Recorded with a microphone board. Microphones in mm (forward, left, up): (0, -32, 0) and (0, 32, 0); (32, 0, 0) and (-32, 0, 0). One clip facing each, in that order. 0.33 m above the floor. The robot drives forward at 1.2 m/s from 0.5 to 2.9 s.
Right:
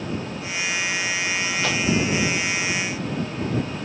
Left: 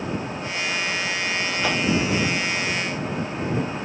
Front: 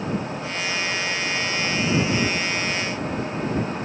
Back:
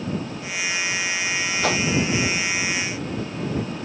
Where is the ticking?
I don't hear ticking.